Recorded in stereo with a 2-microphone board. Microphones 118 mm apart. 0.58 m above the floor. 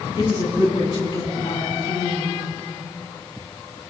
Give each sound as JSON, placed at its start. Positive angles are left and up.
{"t": 0.1, "sound": "a woman speaking", "side_deg": 40, "distance_m": 5.0}